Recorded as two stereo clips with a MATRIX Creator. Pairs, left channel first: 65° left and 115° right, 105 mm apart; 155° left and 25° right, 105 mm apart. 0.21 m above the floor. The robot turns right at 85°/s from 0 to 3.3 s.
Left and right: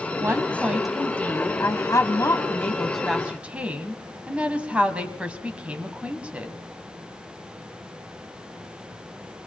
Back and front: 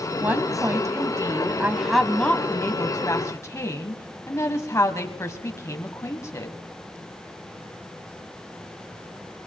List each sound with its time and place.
0.2 s a woman speaking: 85° right, 1.1 m; by 6.5 s straight behind, 1.1 m